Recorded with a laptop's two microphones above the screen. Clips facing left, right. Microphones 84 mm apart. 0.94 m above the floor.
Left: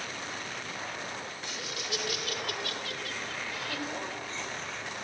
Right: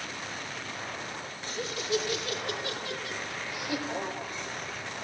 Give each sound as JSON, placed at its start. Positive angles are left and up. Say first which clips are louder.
{"t": 1.4, "sound": "laughter", "louder": "right 4 dB", "side_deg": -40, "distance_m": 3.5}